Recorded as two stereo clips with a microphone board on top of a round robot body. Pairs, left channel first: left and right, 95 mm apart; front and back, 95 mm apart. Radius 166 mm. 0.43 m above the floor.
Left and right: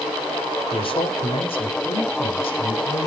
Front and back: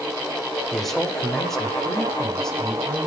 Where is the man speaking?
85° left, 2.5 m; by 3.1 s 80° left, 3.5 m.